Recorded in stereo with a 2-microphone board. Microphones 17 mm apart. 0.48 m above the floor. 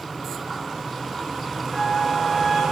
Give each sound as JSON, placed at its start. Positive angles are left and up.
{"t": 1.7, "sound": "a flute", "side_deg": -5, "distance_m": 6.5}